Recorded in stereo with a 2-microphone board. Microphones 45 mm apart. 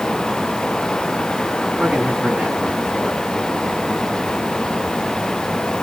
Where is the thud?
I don't hear a thud.